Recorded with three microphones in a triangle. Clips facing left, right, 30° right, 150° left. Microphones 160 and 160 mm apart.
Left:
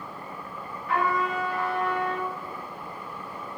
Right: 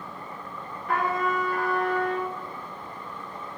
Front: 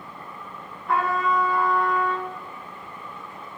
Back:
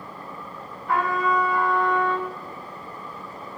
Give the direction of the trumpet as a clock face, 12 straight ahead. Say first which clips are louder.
Even, even; 4 o'clock.